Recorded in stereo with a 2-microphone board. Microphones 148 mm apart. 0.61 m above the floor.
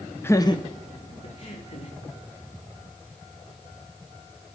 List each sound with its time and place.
0.2 s laughter: 15° left (ahead or behind), 0.6 m; by 1.9 s 50° left (ahead or behind), 1.9 m